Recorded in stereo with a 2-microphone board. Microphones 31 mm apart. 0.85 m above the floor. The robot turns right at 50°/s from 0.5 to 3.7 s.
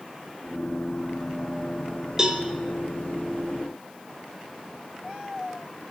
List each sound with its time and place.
2.2 s a cowbell: 25° right (ahead or behind), 2 m; by 2.4 s 10° right (ahead or behind), 2 m